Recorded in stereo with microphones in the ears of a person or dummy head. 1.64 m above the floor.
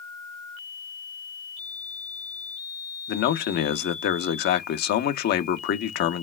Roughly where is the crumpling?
I don't hear crumpling.